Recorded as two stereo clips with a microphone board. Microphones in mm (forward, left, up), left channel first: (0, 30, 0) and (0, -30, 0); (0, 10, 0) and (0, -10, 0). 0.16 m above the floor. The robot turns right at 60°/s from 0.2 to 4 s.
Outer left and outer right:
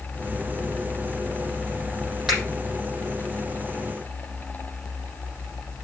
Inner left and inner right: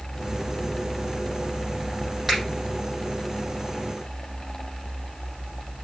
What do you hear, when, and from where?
2.3 s a finger snap: 5° right (ahead or behind), 5.5 m; by 2.4 s 10° right (ahead or behind), 5.5 m